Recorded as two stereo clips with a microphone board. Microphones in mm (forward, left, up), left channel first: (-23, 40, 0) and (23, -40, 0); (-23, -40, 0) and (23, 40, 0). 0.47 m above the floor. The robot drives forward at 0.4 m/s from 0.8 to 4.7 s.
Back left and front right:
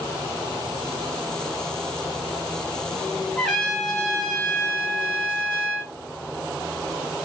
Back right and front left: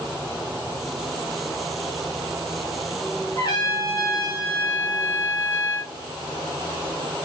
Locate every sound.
3.4 s a trumpet: 155° right, 2.5 m; by 5.9 s 160° right, 3 m